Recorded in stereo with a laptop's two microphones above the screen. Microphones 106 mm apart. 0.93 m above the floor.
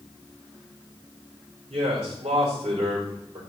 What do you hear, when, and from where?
1.7 s a man speaking: 70° right (ahead or behind), 3.5 m